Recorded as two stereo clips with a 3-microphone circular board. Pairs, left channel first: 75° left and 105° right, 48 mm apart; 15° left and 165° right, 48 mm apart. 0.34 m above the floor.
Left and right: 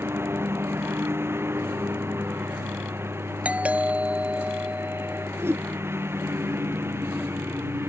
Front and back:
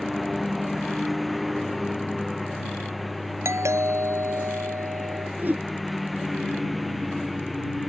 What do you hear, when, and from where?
0.0 s a lawn mower: 75° right
3.5 s a doorbell: 170° right
5.4 s a whoosh: 120° right